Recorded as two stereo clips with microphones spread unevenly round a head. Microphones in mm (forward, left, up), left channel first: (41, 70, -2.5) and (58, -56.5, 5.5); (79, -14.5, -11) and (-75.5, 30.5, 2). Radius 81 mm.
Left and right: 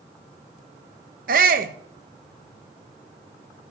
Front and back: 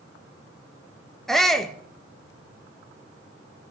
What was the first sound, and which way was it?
A shout, 105° right.